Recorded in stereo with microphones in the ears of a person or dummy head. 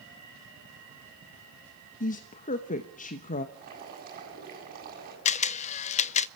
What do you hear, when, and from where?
2.0 s a woman speaking: 40° left (ahead or behind), 1.0 m
3.5 s boiling: 40° right (ahead or behind), 8 m
5.2 s a camera shutter: 35° left (ahead or behind), 0.6 m